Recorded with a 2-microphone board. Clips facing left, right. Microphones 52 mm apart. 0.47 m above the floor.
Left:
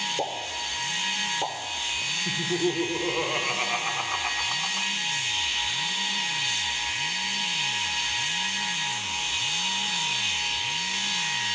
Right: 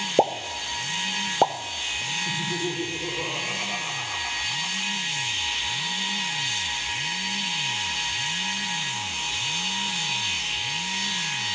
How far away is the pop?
About 0.6 m.